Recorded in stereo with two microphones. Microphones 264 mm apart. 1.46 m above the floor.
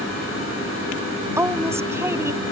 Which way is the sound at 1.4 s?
10° right (ahead or behind).